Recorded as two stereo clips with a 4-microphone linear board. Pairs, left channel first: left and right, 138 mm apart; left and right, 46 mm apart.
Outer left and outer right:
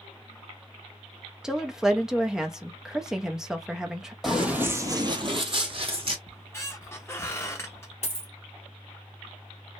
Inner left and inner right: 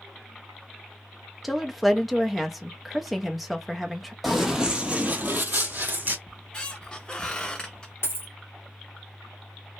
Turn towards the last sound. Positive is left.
turn(degrees=55)  # may be behind; listen again after turning